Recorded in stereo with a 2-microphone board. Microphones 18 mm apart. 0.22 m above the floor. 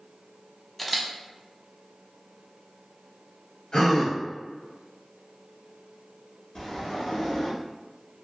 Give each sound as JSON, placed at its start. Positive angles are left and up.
{"t": 0.8, "sound": "a camera shutter", "side_deg": 15, "distance_m": 0.5}
{"t": 3.7, "sound": "a gasp", "side_deg": 65, "distance_m": 1.2}
{"t": 6.5, "sound": "a sliding door", "side_deg": 45, "distance_m": 1.2}